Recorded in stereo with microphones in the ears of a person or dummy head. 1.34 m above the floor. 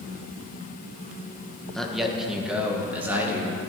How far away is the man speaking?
About 1.3 m.